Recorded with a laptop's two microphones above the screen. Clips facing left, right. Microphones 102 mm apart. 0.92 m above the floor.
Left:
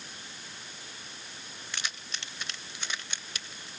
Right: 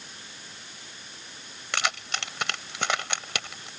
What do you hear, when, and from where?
1.7 s keys jangling: 80° right